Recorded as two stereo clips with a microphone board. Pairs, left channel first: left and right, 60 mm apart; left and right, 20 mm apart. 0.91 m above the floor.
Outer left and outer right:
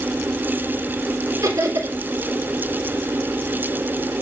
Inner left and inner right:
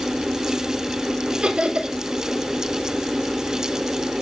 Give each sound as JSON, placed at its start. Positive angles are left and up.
{"t": 1.4, "sound": "laughter", "side_deg": -75, "distance_m": 3.5}